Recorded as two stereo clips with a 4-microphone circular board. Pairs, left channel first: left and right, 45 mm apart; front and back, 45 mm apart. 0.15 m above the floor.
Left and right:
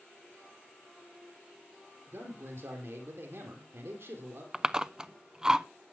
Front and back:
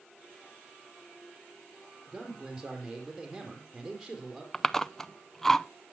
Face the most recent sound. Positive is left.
turn(degrees=-65)